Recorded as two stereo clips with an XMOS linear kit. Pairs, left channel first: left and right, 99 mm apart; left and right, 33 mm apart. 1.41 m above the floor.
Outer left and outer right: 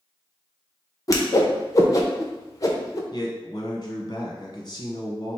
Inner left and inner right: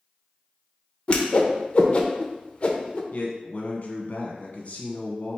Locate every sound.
1.1 s a whoosh: 35° left (ahead or behind), 0.6 m
3.1 s a man speaking: 45° left (ahead or behind), 1.1 m